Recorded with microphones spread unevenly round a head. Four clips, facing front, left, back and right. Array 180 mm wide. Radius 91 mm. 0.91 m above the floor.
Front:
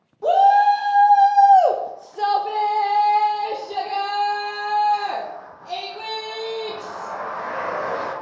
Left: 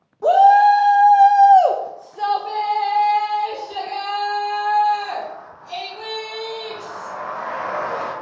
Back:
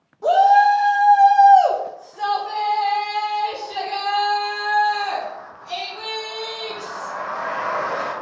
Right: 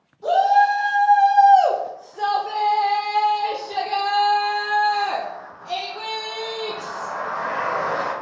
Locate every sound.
0.2 s a shout: 100° left, 1.3 m; by 8.1 s 45° right, 3.5 m